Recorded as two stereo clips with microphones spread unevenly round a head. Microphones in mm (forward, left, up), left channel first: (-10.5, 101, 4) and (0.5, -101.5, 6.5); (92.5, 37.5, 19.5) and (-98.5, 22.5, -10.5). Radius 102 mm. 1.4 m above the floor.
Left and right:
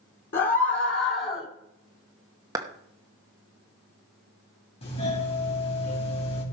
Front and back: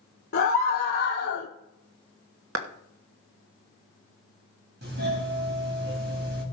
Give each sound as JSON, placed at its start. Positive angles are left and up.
{"t": 0.3, "sound": "a scream", "azimuth_deg": 45, "distance_m": 1.8}
{"t": 2.5, "sound": "a clap", "azimuth_deg": -160, "distance_m": 1.1}
{"t": 4.8, "sound": "a doorbell", "azimuth_deg": 155, "distance_m": 4.5}